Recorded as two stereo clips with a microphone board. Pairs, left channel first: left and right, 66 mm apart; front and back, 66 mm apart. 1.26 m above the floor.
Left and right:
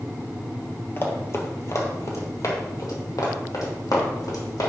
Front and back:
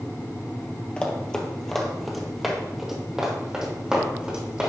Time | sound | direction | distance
1.0 | running footsteps | 65° left | 1.6 m